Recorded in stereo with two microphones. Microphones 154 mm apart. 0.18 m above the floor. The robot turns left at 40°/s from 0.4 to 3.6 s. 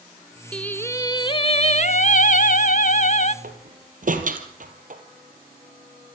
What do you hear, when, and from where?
0.5 s singing: 175° left, 0.6 m; by 3.3 s 60° left, 0.6 m
3.4 s a door slam: 65° right (ahead or behind), 3 m; by 5.0 s 60° right (ahead or behind), 3 m